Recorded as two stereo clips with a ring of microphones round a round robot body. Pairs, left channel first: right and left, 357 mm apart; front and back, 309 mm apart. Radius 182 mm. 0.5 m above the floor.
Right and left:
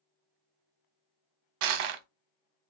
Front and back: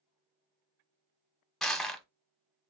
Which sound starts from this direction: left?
Crushing, at 1.6 s.